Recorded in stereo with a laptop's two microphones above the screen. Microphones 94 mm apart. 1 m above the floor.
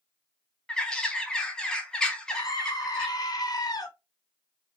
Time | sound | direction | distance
0.7 | a bird | 10° left (ahead or behind) | 0.8 m
2.3 | a scream | 45° left (ahead or behind) | 0.9 m